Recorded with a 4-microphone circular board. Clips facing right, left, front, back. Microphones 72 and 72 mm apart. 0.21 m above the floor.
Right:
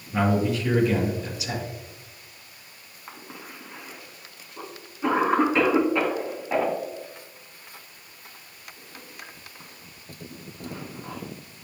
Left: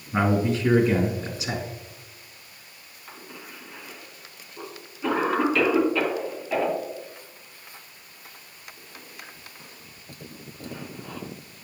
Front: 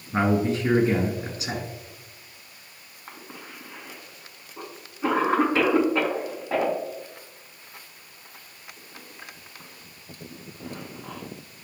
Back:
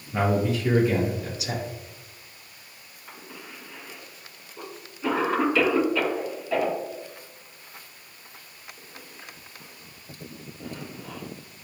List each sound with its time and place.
0.1 s a man speaking: 40° left, 2.5 m
3.1 s a cough: 35° right, 2 m